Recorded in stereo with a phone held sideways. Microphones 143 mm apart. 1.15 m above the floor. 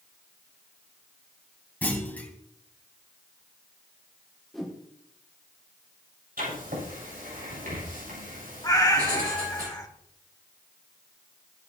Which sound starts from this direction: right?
Writing, at 6.4 s.